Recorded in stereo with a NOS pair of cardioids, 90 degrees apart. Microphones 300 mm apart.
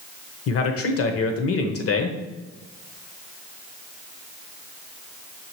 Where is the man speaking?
55° left, 0.8 m.